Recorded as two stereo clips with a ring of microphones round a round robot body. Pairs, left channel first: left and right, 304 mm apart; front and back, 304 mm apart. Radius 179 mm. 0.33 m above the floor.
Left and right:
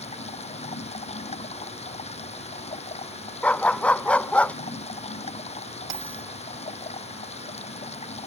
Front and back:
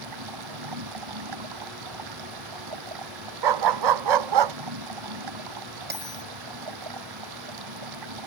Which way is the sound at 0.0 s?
160° left.